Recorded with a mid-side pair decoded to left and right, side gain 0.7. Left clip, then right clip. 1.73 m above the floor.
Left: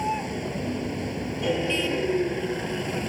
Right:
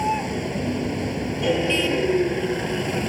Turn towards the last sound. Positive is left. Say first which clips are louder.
# right 4 dB
turn(degrees=-15)